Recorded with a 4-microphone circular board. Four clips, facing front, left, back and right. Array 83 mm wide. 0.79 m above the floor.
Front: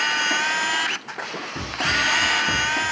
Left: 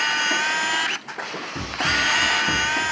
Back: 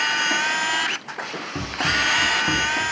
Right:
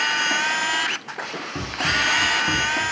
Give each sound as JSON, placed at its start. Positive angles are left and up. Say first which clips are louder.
{"t": 1.6, "sound": "running footsteps", "louder": "even, even", "azimuth_deg": -145, "distance_m": 3.5}